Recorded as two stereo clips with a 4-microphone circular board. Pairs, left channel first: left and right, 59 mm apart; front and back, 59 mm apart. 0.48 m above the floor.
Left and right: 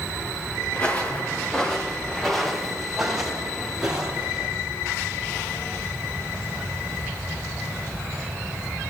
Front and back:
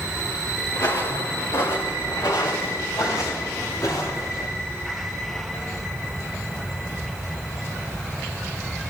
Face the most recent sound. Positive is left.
turn(degrees=-15)